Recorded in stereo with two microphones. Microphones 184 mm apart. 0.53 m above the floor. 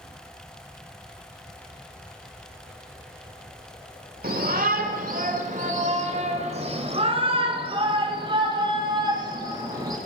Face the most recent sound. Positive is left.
turn(degrees=-20)  # may be behind; listen again after turning